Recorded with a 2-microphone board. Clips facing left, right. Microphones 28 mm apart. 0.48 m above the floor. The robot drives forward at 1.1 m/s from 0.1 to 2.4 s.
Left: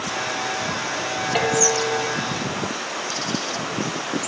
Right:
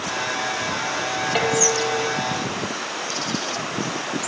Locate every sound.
1.4 s dishes clattering: 5° right (ahead or behind)